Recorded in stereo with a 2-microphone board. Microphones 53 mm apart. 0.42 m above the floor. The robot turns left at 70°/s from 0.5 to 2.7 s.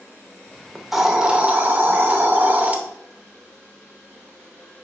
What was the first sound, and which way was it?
A hiss, 5° left.